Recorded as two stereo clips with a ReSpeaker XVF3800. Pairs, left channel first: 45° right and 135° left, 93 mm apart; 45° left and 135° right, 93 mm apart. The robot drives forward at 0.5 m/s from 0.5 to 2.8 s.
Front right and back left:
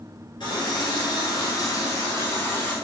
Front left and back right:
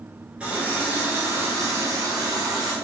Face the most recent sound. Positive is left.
turn(degrees=-115)